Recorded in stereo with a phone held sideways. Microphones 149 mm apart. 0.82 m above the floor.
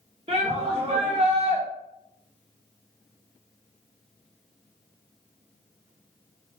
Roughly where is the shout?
Right.